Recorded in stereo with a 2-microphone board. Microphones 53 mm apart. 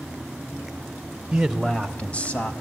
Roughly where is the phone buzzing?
No phone buzzing in this recording.